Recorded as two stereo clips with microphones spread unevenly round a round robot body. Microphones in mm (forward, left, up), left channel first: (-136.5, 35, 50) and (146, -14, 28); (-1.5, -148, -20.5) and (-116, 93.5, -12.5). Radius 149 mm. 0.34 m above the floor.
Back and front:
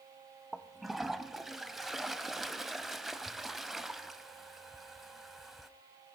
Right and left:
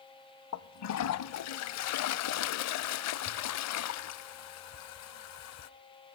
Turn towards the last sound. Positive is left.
turn(degrees=-100)